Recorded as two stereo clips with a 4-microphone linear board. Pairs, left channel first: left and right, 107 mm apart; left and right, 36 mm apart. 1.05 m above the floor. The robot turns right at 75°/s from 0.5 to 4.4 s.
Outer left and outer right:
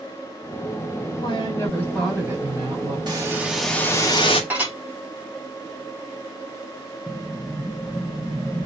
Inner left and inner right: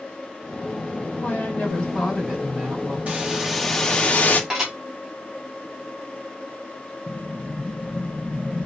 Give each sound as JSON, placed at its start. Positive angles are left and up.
{"t": 1.2, "sound": "a woman speaking", "azimuth_deg": 115, "distance_m": 6.0}
{"t": 3.1, "sound": "a hiss", "azimuth_deg": -40, "distance_m": 1.8}
{"t": 4.5, "sound": "dishes clattering", "side_deg": -15, "distance_m": 4.5}
{"t": 7.1, "sound": "an explosion", "side_deg": 5, "distance_m": 1.1}